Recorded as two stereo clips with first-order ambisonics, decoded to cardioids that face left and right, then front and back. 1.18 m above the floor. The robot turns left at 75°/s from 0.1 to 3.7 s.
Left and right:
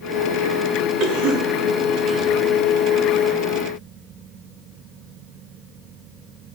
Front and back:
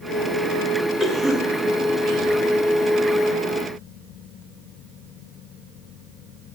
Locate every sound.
1.0 s a cough: 75° right, 3 m; by 2.3 s 175° right, 3 m